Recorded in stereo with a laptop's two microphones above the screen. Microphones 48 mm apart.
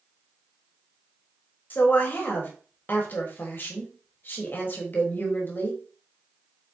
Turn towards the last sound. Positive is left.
turn(degrees=45)  # may be behind; listen again after turning